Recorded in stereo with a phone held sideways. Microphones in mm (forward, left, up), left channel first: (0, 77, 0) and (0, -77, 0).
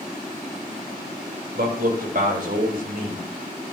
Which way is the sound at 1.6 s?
80° right.